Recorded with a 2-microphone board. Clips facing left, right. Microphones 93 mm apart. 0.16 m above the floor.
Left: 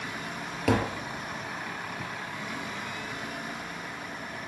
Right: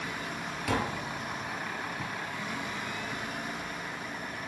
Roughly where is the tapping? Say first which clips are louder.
Left 5 dB; left.